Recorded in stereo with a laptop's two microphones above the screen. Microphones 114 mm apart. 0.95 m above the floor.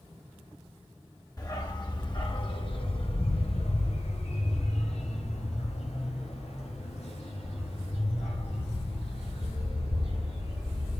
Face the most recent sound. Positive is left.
turn(degrees=55)  # may be behind; listen again after turning